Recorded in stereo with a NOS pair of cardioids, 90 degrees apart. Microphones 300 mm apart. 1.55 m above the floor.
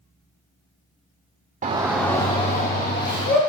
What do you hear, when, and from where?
1.6 s a shout: 25° right, 0.5 m; by 3.4 s 35° left, 1.5 m